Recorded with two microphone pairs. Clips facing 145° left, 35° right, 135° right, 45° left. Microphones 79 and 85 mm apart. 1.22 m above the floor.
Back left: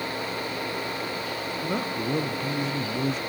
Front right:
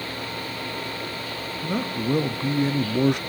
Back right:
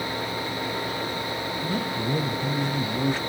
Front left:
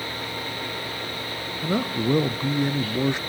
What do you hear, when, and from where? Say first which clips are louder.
1.6 s a man speaking: front right 4 dB, front left 6 dB; 55° left, 0.8 m; by 3.2 s 25° right, 0.5 m